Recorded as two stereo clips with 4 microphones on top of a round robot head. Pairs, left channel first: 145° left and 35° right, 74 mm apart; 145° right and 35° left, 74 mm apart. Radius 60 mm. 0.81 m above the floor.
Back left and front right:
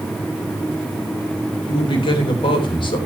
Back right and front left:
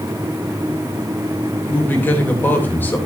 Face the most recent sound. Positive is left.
turn(degrees=150)